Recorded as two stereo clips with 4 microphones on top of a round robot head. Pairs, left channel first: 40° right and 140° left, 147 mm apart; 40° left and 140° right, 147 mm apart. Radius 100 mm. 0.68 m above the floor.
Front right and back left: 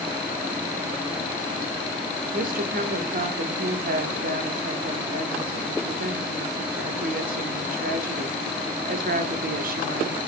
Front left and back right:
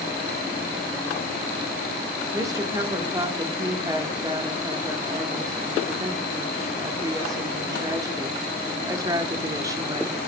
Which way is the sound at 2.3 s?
150° left.